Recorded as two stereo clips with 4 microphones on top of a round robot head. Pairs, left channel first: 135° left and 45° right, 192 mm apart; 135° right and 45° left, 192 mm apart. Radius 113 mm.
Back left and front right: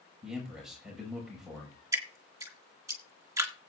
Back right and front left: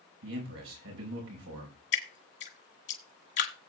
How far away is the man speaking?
About 5 m.